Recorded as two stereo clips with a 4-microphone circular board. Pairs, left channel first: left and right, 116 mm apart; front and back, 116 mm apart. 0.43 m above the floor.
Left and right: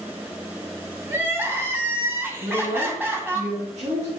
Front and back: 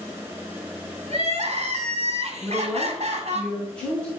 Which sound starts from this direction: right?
A woman speaking, at 2.4 s.